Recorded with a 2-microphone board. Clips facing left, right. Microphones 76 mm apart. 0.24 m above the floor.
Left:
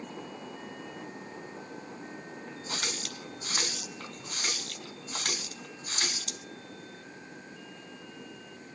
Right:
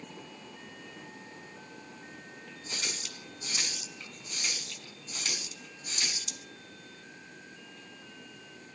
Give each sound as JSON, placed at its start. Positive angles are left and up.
{"t": 2.7, "sound": "a running tap", "side_deg": 55, "distance_m": 1.2}